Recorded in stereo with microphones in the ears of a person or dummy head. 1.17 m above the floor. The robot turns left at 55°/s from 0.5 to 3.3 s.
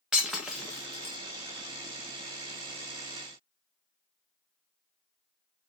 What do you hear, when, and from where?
0.1 s breaking glass: centre (ahead or behind), 0.5 m; by 1.2 s 30° left (ahead or behind), 0.5 m